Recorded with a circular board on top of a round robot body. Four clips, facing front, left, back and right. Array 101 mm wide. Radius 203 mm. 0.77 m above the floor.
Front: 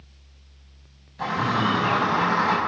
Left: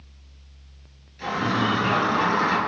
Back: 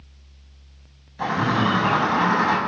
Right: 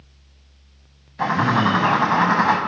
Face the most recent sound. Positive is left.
turn(degrees=-100)